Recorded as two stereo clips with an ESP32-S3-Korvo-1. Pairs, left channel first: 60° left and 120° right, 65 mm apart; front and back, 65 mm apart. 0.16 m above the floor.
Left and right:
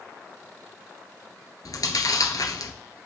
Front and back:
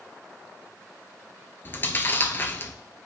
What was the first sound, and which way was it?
Chewing, 55° left.